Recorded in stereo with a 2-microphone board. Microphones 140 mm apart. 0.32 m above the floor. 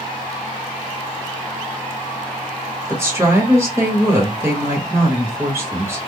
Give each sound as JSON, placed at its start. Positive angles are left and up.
{"t": 2.9, "sound": "a woman speaking", "side_deg": -20, "distance_m": 1.3}